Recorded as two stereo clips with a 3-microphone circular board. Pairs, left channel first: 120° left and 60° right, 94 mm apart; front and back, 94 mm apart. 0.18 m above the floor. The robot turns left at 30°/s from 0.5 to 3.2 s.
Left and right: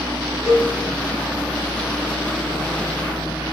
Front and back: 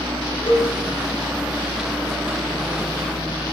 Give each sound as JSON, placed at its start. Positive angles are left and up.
{"t": 0.5, "sound": "a cowbell", "azimuth_deg": 30, "distance_m": 5.0}